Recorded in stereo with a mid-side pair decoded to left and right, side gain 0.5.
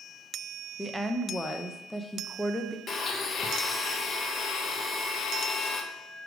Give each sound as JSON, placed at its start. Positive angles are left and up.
{"t": 0.8, "sound": "a woman speaking", "azimuth_deg": 5, "distance_m": 0.9}
{"t": 2.9, "sound": "a blender", "azimuth_deg": 45, "distance_m": 0.8}